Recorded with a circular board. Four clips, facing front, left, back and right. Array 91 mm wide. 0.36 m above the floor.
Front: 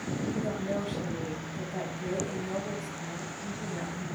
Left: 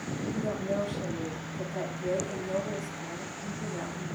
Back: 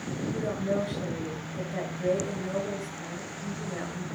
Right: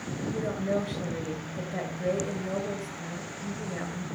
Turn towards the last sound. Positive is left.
turn(degrees=-125)